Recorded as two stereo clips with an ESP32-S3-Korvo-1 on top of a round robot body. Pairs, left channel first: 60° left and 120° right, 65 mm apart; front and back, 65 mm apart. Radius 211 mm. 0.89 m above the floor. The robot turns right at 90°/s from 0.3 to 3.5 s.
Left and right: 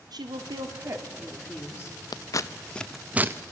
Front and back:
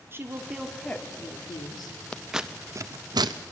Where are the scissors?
75° left, 0.6 m; by 3.3 s 175° right, 0.6 m.